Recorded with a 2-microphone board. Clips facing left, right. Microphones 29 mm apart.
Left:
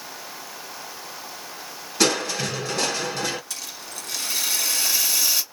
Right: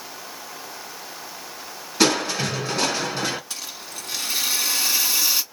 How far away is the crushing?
About 1.8 m.